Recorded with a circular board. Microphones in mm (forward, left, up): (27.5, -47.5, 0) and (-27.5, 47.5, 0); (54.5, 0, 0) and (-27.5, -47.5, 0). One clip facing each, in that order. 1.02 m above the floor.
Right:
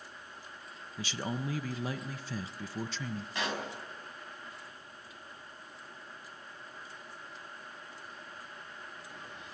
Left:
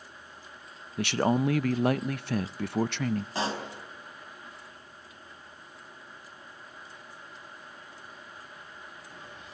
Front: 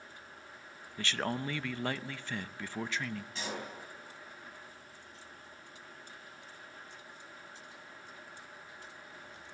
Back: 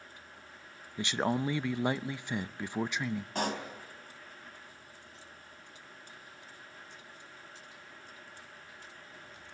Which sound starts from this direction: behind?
A pop, at 3.4 s.